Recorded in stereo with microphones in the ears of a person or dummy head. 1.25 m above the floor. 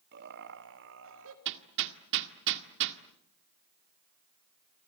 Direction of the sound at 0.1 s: 55° right (ahead or behind).